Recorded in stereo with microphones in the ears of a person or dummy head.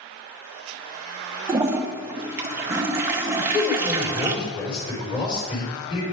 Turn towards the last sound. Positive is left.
turn(degrees=25)  # may be behind; listen again after turning